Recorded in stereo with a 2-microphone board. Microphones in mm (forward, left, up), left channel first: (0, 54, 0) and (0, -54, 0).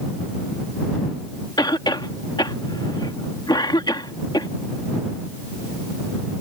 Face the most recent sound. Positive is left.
turn(degrees=40)  # may be behind; listen again after turning